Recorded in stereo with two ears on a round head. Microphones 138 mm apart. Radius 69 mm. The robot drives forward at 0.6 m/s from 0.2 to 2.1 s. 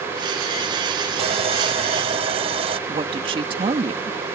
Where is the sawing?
40° right (ahead or behind).